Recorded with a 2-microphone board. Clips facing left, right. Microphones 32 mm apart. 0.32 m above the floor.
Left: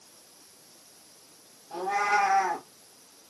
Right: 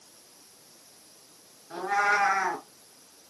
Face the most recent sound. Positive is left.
turn(degrees=-55)  # may be behind; listen again after turning